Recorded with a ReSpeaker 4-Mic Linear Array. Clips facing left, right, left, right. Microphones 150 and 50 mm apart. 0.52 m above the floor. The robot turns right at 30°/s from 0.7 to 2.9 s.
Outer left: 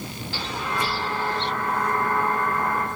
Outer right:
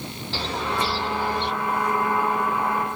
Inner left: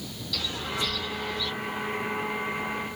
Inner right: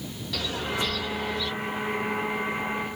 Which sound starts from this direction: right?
A bird, at 0.3 s.